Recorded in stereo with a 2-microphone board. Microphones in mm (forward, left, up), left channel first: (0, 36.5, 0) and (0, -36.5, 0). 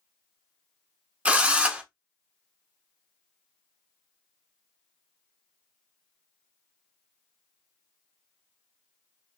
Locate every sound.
1.2 s a drill: 15° right (ahead or behind), 0.8 m